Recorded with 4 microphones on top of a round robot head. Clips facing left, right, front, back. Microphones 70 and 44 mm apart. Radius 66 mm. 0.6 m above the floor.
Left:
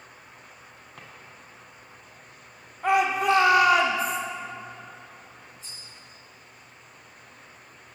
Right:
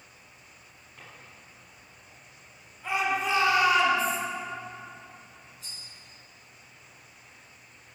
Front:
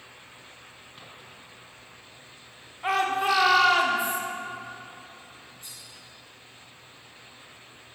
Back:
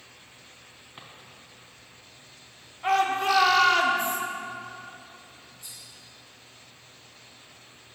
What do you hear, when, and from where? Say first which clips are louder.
1.0 s a drawer: left 2 dB, back 2 dB; 110° left, 1.8 m
2.8 s a shout: left 6 dB, back 1 dB; 80° left, 1.6 m
5.6 s cutlery clinking: left 1 dB, front 1 dB; 60° right, 3.5 m